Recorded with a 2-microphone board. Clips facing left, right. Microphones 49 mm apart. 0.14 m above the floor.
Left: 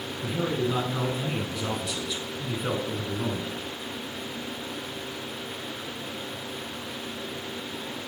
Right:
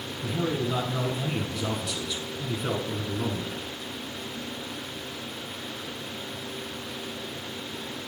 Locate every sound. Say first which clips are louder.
0.2 s a man speaking: left 1 dB; 10° left (ahead or behind), 1.1 m